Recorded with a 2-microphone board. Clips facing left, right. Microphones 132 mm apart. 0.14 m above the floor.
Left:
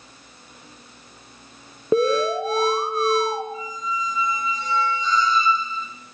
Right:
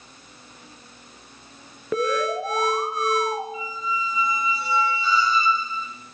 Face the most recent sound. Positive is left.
turn(degrees=-5)  # may be behind; listen again after turning